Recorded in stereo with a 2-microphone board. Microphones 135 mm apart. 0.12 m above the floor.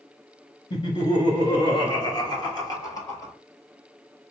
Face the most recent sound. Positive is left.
turn(degrees=25)  # may be behind; listen again after turning